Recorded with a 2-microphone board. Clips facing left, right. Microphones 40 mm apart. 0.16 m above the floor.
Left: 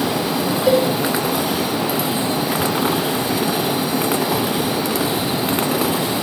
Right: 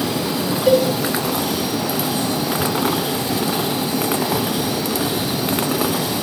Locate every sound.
0.7 s a cowbell: centre (ahead or behind), 4 m